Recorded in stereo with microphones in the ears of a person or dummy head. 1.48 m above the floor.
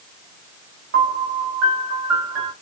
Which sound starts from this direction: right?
A piano, at 0.9 s.